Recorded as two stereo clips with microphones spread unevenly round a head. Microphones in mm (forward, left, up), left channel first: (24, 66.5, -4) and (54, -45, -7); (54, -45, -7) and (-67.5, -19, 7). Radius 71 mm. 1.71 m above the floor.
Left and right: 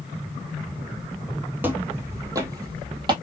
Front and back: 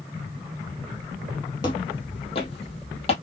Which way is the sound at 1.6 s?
15° right.